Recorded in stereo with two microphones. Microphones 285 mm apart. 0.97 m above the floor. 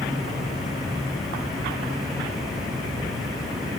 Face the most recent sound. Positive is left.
No sound to turn to.